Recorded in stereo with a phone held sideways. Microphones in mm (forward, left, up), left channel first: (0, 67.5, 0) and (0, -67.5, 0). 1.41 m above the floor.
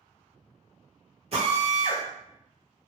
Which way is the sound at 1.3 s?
50° right (ahead or behind).